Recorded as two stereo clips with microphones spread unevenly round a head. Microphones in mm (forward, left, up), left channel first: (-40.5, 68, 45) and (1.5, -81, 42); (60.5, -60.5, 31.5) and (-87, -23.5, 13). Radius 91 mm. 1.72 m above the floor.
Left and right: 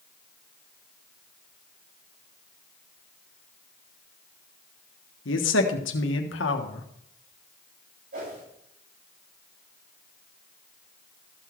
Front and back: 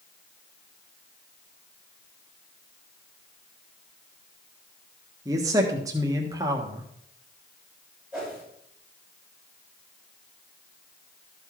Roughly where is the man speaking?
Left.